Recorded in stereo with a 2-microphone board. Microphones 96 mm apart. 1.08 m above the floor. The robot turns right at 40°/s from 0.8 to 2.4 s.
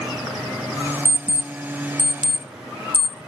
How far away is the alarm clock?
About 0.8 m.